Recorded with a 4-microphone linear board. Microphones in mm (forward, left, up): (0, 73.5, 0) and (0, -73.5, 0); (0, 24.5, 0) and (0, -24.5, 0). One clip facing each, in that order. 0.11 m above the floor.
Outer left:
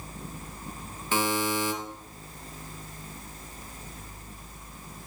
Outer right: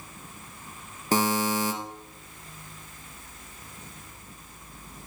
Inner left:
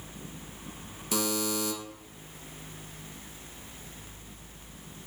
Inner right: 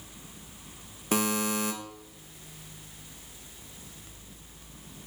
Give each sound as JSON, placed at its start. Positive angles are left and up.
{"t": 1.1, "sound": "a buzzer", "side_deg": -40, "distance_m": 1.8}